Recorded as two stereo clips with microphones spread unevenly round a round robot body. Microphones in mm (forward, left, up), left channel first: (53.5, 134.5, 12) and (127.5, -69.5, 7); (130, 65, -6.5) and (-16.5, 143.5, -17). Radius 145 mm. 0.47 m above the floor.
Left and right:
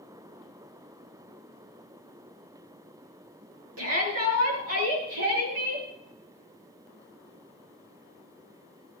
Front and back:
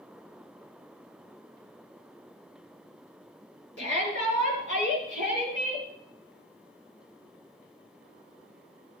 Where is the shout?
60° right, 7.5 m; by 5.9 s 70° right, 10 m.